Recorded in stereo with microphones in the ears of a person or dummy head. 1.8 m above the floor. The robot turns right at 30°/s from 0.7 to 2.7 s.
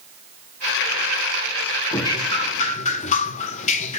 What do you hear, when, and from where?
1.9 s dripping: 15° left (ahead or behind), 0.8 m; by 4.0 s 35° left (ahead or behind), 0.8 m